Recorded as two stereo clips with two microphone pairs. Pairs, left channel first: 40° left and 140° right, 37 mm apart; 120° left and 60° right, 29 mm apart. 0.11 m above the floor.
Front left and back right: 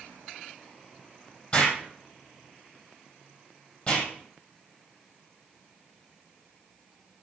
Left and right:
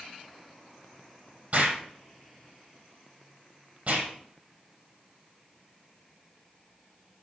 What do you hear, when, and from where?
1.5 s an explosion: 20° right, 4 m